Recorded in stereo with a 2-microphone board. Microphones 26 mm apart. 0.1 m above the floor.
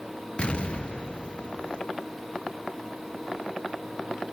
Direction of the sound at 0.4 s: 45° left (ahead or behind).